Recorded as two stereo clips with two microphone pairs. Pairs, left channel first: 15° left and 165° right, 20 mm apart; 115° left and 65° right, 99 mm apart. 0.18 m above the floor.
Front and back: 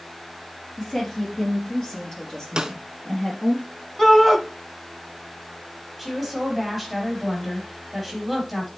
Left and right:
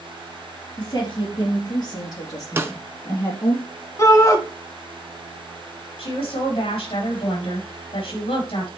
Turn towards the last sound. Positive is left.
turn(degrees=95)